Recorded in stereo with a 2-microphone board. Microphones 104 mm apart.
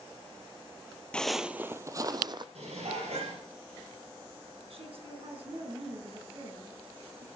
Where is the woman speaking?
65° right (ahead or behind), 3.5 m.